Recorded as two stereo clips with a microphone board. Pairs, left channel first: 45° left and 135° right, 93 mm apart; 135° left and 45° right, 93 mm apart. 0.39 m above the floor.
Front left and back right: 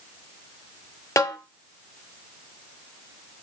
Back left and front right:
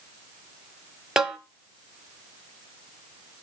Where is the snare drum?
35° left, 0.8 m.